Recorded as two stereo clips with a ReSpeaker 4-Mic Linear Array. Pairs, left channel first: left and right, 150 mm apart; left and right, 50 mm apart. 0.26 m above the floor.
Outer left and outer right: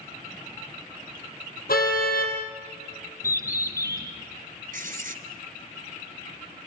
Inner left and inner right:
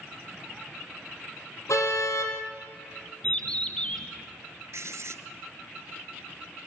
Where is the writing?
70° right (ahead or behind), 1.2 m.